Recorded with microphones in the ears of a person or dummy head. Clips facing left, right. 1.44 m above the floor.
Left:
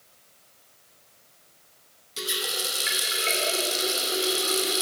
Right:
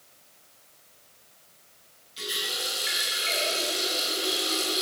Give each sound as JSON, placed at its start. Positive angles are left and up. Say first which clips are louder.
{"t": 2.2, "sound": "a running tap", "louder": "left 3 dB", "side_deg": 65, "distance_m": 2.5}